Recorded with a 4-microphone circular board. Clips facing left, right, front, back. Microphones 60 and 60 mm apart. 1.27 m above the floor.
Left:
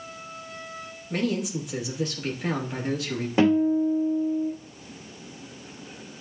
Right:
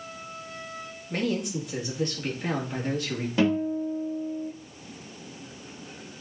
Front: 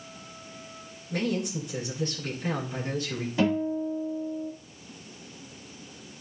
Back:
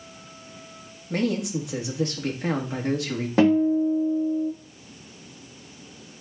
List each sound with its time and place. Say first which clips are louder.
1.1 s a man speaking: left 1 dB, back 4 dB; 175° left, 2.5 m
3.4 s a guitar: left 5 dB, back 8 dB; 155° left, 2.5 m